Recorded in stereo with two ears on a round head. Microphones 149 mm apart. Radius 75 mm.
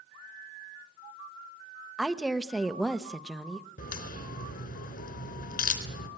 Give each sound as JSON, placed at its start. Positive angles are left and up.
{"t": 2.0, "sound": "a woman speaking", "side_deg": 0, "distance_m": 1.0}
{"t": 3.8, "sound": "a crack", "side_deg": 55, "distance_m": 4.0}